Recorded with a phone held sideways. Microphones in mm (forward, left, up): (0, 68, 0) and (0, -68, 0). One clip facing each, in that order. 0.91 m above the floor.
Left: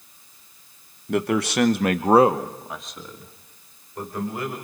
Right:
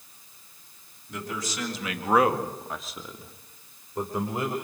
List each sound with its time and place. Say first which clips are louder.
1.1 s a man speaking: left 12 dB; 70° left (ahead or behind), 1.6 m; by 4.6 s 25° right (ahead or behind), 4 m